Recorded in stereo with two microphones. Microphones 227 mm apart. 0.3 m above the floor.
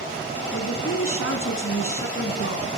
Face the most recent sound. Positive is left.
turn(degrees=70)  # may be behind; listen again after turning